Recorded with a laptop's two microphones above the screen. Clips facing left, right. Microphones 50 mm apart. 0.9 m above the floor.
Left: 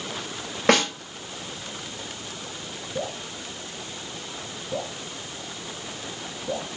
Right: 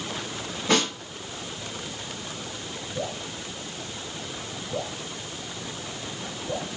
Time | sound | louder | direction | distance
0.7 | a snare drum | left 4 dB | 80° left | 5.5 m
3.0 | dripping | left 1 dB | 70° left (ahead or behind) | 2.5 m